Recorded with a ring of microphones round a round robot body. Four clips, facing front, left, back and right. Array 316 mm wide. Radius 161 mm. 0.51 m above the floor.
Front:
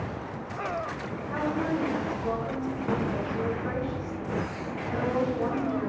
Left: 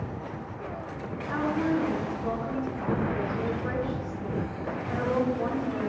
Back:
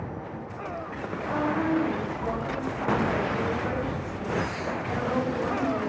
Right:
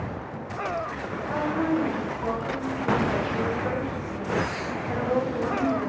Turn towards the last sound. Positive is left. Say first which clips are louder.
# right 1 dB, back 3 dB
turn(degrees=-120)